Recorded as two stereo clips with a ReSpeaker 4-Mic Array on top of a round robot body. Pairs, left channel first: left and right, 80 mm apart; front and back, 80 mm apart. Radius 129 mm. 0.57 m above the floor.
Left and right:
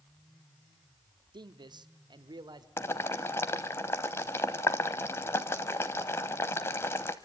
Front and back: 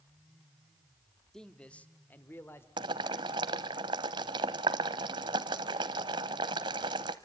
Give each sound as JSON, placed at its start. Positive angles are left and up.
{"t": 1.3, "sound": "a man speaking", "azimuth_deg": -85, "distance_m": 1.3}
{"t": 2.8, "sound": "boiling", "azimuth_deg": 150, "distance_m": 0.5}